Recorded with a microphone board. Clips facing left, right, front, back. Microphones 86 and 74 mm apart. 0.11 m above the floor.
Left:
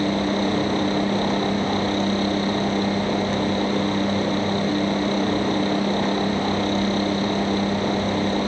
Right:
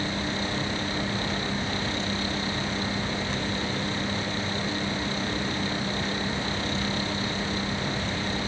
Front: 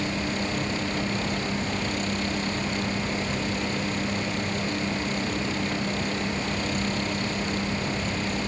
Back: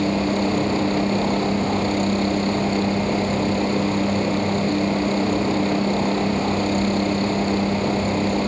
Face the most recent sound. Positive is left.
turn(degrees=135)